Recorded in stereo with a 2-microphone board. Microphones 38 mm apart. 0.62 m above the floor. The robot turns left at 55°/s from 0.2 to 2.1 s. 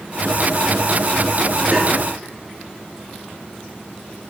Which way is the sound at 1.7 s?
85° right.